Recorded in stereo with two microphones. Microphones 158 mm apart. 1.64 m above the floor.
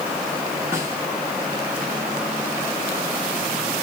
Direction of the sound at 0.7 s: 15° right (ahead or behind).